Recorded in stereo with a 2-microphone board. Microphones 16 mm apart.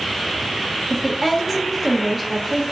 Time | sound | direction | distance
0.9 | a woman speaking | 5° right (ahead or behind) | 0.6 m